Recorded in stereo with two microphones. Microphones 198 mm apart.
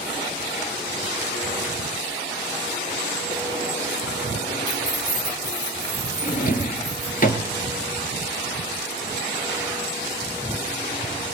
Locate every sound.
4.7 s keys jangling: 20° left (ahead or behind), 0.9 m; by 7.2 s 65° left (ahead or behind), 4.5 m
6.2 s a drawer: 45° left (ahead or behind), 0.8 m